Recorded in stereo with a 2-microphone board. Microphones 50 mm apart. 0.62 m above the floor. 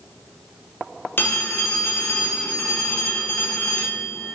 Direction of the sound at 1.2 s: 45° left (ahead or behind).